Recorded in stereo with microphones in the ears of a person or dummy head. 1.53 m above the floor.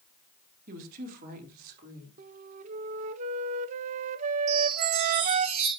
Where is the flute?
35° right (ahead or behind), 0.6 m.